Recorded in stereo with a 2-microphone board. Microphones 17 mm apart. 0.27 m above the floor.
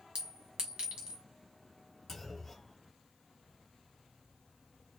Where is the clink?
55° right (ahead or behind), 1.5 m.